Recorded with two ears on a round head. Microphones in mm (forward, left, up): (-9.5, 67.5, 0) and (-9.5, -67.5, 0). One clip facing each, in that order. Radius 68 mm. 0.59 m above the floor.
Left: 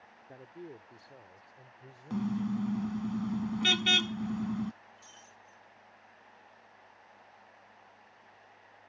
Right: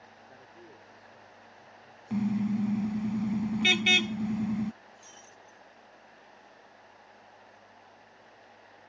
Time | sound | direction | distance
0.3 | a man speaking | 30° left (ahead or behind) | ?
2.1 | a car horn | 15° right (ahead or behind) | ?
5.0 | breaking glass | 20° right (ahead or behind) | ?